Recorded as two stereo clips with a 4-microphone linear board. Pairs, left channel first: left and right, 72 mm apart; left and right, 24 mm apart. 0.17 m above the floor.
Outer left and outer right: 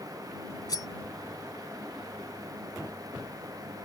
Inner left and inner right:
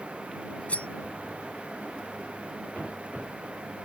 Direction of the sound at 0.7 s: 65° left (ahead or behind).